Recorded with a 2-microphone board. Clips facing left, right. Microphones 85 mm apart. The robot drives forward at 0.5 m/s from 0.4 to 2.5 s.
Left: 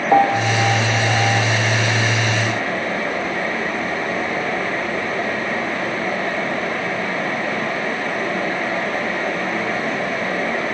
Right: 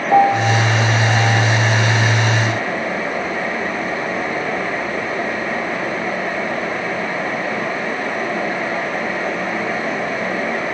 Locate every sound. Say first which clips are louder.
0.1 s a piano: right 2 dB; 10° left (ahead or behind), 0.9 m